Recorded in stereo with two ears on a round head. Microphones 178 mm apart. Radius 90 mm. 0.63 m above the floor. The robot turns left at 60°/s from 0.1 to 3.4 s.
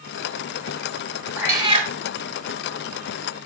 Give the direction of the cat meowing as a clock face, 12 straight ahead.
12 o'clock.